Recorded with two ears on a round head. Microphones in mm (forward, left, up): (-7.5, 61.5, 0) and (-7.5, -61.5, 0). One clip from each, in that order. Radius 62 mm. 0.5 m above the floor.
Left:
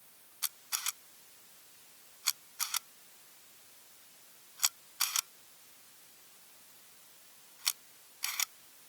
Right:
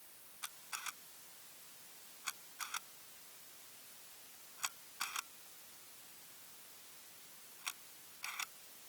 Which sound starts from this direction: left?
A camera shutter, at 0.4 s.